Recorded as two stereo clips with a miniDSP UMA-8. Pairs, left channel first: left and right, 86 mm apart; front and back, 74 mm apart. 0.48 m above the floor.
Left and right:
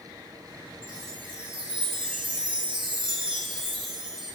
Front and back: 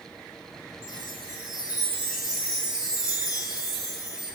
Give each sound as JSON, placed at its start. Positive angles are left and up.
{"t": 0.8, "sound": "a chime", "azimuth_deg": -95, "distance_m": 9.0}